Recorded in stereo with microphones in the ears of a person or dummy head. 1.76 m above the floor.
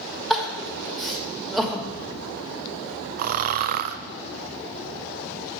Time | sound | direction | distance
0.3 | crying | centre (ahead or behind) | 1.2 m
3.2 | snoring | 45° right (ahead or behind) | 0.5 m